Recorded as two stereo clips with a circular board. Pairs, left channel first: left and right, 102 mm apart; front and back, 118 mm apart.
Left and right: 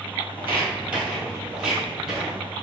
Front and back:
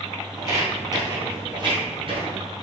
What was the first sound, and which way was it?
Footsteps, 135° right.